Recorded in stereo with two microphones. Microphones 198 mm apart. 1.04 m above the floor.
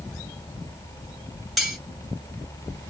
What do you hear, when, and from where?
1.6 s cutlery clinking: centre (ahead or behind), 1.2 m